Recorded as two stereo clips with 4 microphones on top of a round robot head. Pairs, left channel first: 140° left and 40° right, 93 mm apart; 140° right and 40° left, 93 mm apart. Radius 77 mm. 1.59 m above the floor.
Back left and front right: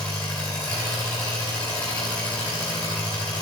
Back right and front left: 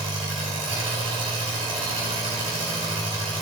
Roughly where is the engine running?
Left.